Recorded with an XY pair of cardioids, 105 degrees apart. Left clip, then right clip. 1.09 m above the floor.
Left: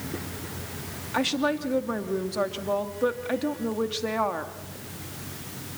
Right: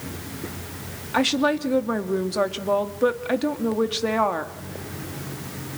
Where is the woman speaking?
25° right, 2.5 m.